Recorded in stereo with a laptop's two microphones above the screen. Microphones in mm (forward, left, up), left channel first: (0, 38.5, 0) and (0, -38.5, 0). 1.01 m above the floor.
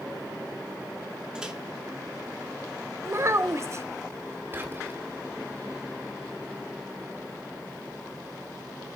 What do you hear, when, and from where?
1.4 s a microwave: 10° right (ahead or behind), 2 m
3.0 s a child speaking: 40° right (ahead or behind), 0.6 m
4.5 s whispering: 30° right (ahead or behind), 3 m